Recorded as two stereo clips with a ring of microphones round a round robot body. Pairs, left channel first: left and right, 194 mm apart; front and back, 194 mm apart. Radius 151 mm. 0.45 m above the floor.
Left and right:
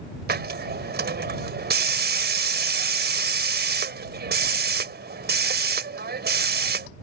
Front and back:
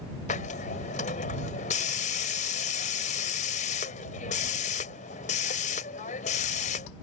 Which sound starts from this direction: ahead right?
A hiss, at 0.3 s.